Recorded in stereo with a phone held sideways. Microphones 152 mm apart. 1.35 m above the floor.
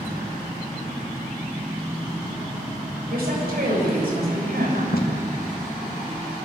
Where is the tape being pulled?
80° left, 2 m.